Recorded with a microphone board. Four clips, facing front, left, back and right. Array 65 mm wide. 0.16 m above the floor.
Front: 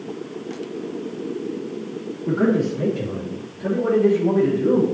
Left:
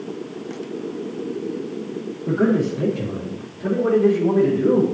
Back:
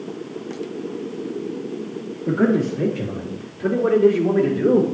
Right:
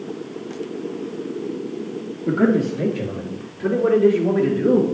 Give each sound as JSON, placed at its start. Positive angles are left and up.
{"t": 2.3, "sound": "a man speaking", "azimuth_deg": -90, "distance_m": 3.5}